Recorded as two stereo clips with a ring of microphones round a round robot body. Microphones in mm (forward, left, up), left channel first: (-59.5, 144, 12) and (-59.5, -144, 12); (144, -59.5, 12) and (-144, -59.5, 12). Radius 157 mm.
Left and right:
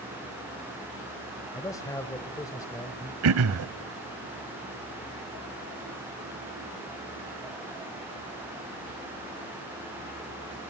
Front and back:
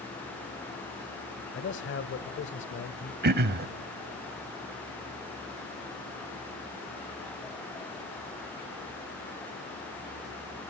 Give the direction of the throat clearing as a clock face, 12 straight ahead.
4 o'clock.